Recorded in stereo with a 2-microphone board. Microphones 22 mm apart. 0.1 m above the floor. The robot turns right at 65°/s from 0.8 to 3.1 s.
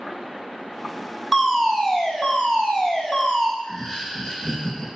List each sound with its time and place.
1.3 s a fire alarm: straight ahead, 4.5 m; by 3.5 s 115° left, 4.5 m
3.6 s laughter: 30° left (ahead or behind), 5 m